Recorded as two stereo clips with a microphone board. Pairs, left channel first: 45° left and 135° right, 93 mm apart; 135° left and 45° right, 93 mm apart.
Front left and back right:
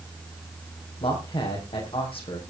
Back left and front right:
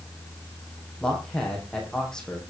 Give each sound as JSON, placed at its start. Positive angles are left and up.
{"t": 1.0, "sound": "a man speaking", "azimuth_deg": 50, "distance_m": 6.0}